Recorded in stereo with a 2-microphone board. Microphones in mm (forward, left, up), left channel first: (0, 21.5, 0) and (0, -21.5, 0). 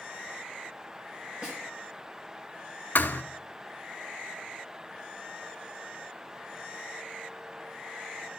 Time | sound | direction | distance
1.4 | a snare drum | 30° right (ahead or behind) | 3 m
3.0 | a thud | 55° left (ahead or behind) | 0.5 m